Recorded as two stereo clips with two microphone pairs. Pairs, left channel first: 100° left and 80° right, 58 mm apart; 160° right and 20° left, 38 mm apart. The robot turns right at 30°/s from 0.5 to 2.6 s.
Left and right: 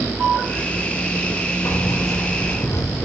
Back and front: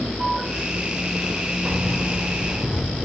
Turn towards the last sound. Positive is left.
turn(degrees=90)